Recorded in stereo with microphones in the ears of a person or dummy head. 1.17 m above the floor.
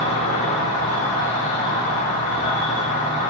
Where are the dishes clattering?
No dishes clattering in this recording.